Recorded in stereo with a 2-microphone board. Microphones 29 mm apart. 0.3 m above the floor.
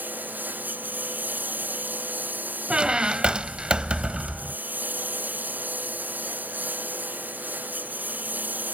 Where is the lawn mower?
85° right; by 8.8 s 75° right (ahead or behind).